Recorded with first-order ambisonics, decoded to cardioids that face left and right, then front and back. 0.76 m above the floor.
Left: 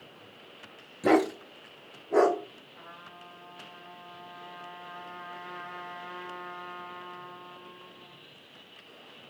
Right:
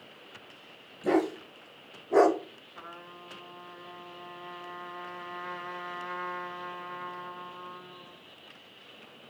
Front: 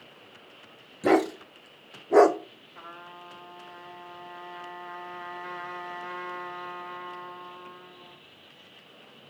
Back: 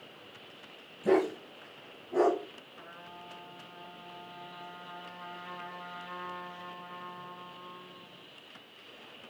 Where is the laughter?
No laughter in this recording.